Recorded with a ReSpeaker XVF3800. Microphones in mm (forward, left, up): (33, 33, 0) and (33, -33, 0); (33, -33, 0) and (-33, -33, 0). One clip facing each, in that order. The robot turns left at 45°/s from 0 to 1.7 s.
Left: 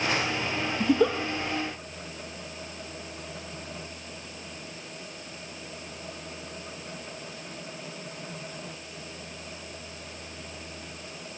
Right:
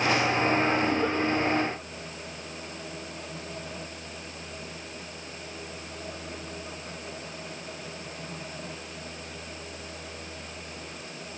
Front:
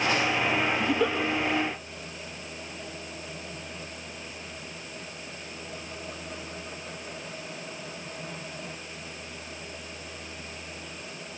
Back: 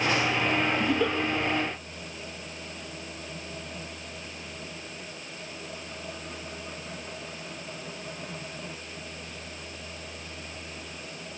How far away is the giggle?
About 2.5 m.